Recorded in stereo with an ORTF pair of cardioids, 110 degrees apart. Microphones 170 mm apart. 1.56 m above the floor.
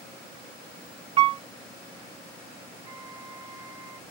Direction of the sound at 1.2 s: 35° right.